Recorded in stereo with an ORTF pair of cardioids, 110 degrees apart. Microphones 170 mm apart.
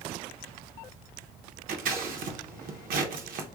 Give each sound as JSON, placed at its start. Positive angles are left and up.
{"t": 1.7, "sound": "scissors", "azimuth_deg": -55, "distance_m": 0.8}